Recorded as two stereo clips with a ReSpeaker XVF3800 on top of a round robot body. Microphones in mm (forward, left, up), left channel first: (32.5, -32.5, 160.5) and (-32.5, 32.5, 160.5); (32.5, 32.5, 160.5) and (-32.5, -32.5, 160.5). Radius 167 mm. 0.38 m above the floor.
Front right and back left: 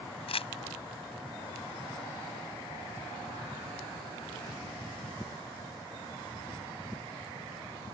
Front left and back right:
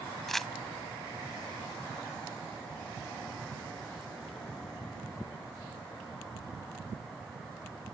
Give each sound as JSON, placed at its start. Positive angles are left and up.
{"t": 0.3, "sound": "crumpling", "azimuth_deg": -40}